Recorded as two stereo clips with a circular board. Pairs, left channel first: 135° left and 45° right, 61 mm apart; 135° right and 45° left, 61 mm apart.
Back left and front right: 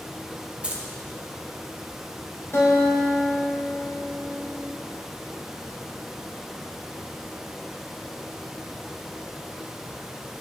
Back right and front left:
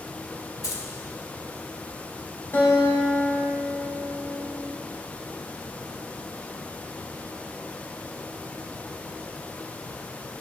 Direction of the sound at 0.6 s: 115° right.